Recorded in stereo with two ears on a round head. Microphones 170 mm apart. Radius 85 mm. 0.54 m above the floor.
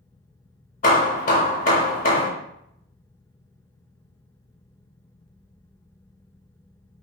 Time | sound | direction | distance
0.8 | hammering | 40° left (ahead or behind) | 0.6 m